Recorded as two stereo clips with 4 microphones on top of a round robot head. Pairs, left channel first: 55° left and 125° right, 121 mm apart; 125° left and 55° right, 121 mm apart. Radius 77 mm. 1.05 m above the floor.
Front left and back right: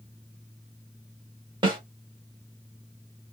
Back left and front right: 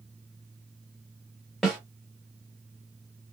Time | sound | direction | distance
1.6 | a snare drum | 150° right | 0.9 m